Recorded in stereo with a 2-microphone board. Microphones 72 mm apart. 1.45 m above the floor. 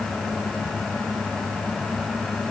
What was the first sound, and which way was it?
Only background noise.